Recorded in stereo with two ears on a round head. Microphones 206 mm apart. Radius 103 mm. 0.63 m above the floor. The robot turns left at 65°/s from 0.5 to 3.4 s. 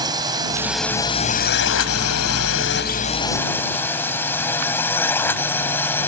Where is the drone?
165° right; by 6.1 s 10° left.